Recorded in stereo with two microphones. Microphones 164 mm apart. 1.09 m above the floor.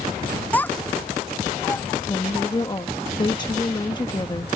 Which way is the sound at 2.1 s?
25° left (ahead or behind).